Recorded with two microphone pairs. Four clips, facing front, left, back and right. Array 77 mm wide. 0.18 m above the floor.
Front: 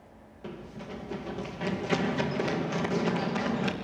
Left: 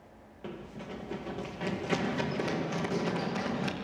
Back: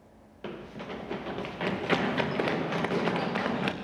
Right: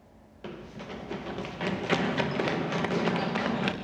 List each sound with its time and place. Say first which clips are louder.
0.4 s running footsteps: right 1 dB, back 2 dB; 155° right, 1.6 m; by 3.7 s 135° right, 3 m